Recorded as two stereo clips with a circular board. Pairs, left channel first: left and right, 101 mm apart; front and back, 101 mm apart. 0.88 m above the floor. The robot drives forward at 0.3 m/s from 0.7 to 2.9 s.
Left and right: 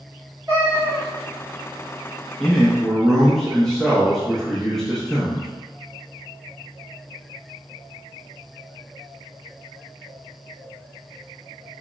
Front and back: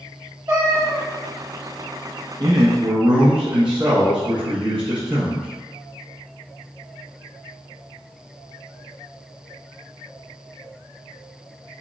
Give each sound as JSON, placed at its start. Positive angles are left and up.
{"t": 0.5, "sound": "a cat meowing", "azimuth_deg": -145, "distance_m": 1.6}
{"t": 2.4, "sound": "a man speaking", "azimuth_deg": 170, "distance_m": 0.6}